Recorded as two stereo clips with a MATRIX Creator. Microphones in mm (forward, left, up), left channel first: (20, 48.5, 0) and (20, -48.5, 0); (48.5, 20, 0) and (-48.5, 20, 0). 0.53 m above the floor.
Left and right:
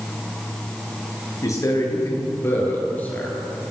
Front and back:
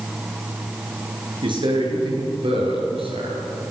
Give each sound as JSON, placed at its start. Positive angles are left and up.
{"t": 1.4, "sound": "a man speaking", "azimuth_deg": 145, "distance_m": 8.5}